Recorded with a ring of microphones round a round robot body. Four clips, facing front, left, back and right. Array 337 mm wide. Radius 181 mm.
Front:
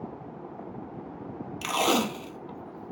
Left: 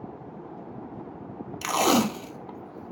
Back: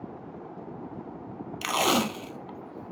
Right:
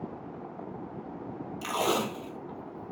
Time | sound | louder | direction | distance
1.6 | tape being pulled | left 6 dB, even | 100° left | 0.6 m